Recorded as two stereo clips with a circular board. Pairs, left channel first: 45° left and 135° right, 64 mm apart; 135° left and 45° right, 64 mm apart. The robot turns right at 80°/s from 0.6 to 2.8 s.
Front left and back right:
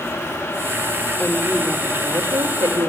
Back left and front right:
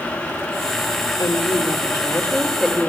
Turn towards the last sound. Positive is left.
turn(degrees=-120)